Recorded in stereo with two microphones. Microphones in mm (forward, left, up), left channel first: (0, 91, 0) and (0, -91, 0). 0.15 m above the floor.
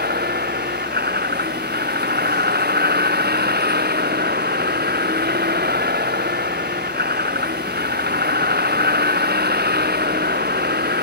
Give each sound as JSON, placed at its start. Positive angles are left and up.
{"t": 0.0, "sound": "a vehicle", "side_deg": -60}